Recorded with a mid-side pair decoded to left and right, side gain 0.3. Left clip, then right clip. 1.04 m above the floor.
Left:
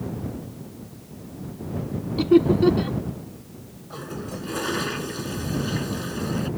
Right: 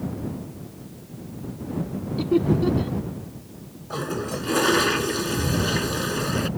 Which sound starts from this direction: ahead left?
Laughter, at 2.2 s.